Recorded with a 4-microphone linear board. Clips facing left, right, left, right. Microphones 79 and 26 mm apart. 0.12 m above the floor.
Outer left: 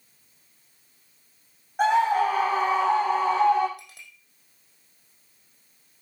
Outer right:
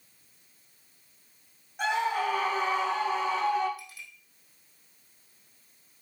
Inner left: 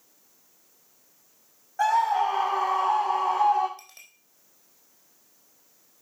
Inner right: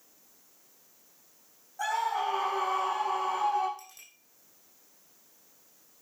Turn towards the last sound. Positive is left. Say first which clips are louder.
# outer right 2 dB, inner left 2 dB
turn(degrees=65)  # may be behind; listen again after turning